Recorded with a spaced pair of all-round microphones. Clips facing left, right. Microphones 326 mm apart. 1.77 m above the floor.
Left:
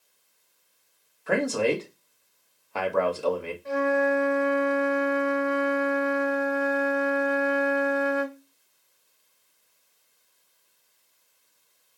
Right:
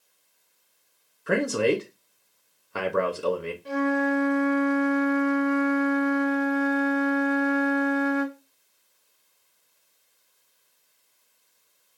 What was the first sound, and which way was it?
A man speaking, 20° right (ahead or behind).